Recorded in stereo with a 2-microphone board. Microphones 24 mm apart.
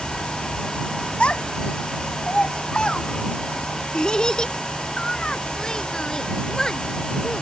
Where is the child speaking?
50° left (ahead or behind); by 7.4 s 25° left (ahead or behind).